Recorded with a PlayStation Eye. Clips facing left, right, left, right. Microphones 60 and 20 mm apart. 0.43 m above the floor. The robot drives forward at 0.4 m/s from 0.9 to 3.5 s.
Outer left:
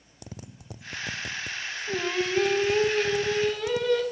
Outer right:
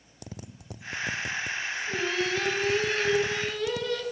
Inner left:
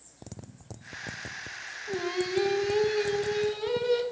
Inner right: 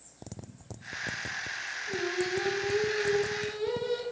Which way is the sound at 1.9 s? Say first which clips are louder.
Outer left 2 dB, inner left 2 dB; 25° left (ahead or behind).